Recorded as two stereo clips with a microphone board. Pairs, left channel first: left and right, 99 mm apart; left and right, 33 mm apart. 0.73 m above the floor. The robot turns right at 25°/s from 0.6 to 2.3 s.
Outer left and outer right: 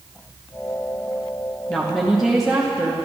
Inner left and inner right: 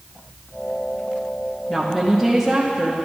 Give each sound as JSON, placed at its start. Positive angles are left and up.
{"t": 1.7, "sound": "a woman speaking", "side_deg": 5, "distance_m": 0.9}